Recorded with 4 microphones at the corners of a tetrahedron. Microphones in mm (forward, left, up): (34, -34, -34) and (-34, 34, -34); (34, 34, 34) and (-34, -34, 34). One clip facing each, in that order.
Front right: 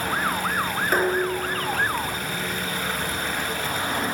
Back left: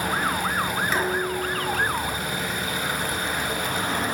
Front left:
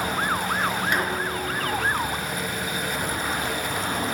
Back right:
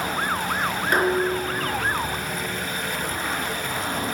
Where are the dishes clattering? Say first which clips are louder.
Front right 6 dB, back right 5 dB; 85° right, 4 m.